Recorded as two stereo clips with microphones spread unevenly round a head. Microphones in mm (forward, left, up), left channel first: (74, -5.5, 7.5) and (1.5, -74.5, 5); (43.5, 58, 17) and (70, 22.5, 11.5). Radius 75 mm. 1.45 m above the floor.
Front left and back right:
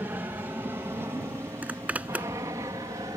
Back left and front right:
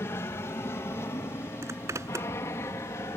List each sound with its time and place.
0.0 s an aircraft: 150° left; by 3.2 s 160° left
1.6 s a zipper: 60° right